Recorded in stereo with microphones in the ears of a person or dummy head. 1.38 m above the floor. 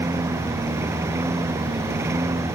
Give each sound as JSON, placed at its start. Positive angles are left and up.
{"t": 0.0, "sound": "a lawn mower", "side_deg": -15}